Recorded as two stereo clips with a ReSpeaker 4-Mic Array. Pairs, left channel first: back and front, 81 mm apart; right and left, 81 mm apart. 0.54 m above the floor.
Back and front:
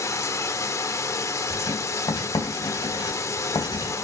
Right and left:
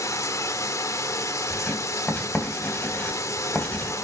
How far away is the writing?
About 3 m.